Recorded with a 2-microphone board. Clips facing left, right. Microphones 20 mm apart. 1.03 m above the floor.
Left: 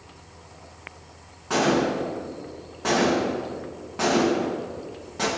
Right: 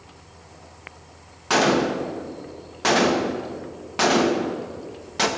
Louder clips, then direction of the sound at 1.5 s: Right 2 dB; 65° right (ahead or behind).